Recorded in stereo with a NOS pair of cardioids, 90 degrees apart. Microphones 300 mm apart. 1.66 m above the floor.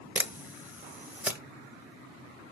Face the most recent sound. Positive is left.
turn(degrees=-5)